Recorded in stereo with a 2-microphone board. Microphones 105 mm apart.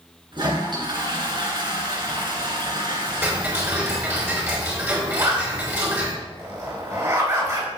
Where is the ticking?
20° right (ahead or behind), 3.5 m.